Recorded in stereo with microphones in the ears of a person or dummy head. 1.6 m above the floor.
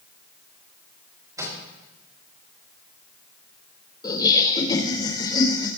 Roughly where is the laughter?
Left.